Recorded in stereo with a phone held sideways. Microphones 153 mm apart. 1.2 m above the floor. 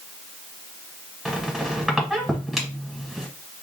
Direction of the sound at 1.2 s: 5° right (ahead or behind).